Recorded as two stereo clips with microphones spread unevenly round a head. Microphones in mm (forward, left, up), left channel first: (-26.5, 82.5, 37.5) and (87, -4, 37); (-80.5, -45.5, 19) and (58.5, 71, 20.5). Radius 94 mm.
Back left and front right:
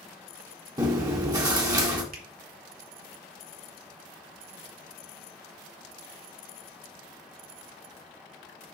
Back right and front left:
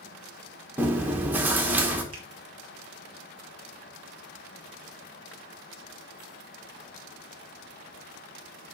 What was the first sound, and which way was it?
Chewing, 25° right.